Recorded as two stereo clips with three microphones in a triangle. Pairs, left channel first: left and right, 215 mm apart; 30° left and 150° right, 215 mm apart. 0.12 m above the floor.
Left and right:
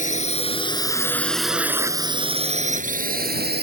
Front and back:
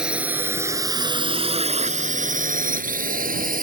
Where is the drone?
125° left; by 3.6 s 110° right.